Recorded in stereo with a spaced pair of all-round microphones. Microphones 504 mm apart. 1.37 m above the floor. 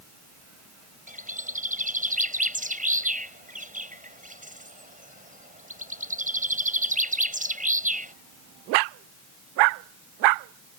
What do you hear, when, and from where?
1.1 s a bird: 15° right (ahead or behind)